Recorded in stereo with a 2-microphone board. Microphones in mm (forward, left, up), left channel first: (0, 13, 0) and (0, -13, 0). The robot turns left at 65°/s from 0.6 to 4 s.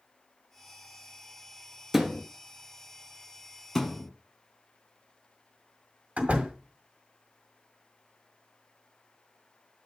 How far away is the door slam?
About 1.7 m.